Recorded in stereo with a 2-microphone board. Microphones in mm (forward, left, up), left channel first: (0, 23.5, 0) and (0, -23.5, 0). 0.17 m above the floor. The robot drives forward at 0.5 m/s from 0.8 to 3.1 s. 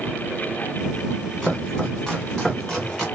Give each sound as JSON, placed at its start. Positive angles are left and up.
{"t": 1.4, "sound": "chopping", "side_deg": 15, "distance_m": 1.7}